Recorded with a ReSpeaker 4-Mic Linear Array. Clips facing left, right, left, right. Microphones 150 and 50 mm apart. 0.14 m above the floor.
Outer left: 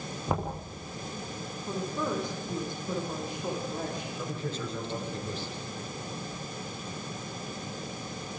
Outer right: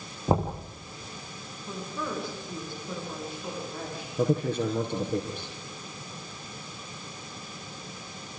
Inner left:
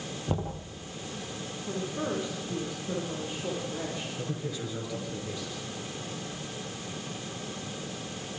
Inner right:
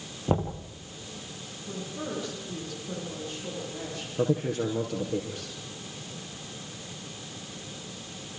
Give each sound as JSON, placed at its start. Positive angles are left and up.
{"t": 0.3, "sound": "knocking", "side_deg": -30, "distance_m": 3.5}
{"t": 1.7, "sound": "a woman speaking", "side_deg": 15, "distance_m": 6.5}
{"t": 4.2, "sound": "a man speaking", "side_deg": -55, "distance_m": 4.0}